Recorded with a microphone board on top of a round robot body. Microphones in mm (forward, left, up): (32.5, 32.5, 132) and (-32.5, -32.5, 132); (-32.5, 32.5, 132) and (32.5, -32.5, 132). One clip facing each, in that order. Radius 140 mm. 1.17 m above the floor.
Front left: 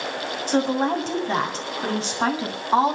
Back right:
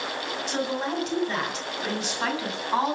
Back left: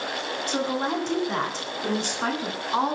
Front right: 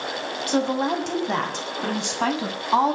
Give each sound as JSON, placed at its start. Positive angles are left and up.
{"t": 0.5, "sound": "a woman speaking", "azimuth_deg": -10, "distance_m": 7.5}